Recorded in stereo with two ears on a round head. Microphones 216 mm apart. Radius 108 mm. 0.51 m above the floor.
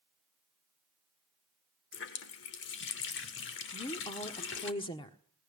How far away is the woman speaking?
About 1.4 m.